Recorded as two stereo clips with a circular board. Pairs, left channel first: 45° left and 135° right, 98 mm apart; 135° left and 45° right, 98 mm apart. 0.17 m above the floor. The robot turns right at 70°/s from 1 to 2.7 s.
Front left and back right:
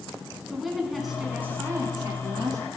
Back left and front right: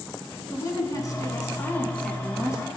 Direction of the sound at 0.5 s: 135° left.